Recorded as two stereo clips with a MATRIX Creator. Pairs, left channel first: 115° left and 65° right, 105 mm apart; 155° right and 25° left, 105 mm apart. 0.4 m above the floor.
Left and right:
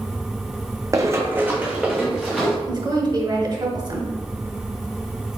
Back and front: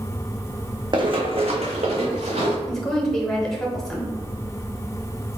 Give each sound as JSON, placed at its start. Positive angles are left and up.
{"t": 0.9, "sound": "running footsteps", "azimuth_deg": -15, "distance_m": 0.8}
{"t": 2.7, "sound": "a woman speaking", "azimuth_deg": -75, "distance_m": 1.3}